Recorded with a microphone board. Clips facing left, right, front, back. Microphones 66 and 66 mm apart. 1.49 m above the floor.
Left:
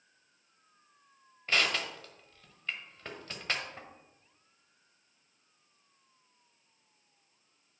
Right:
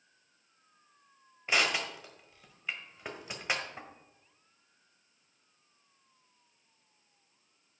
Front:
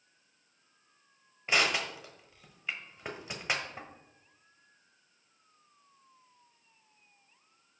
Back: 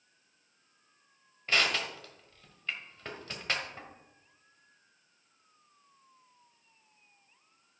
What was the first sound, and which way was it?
Crushing, 40° right.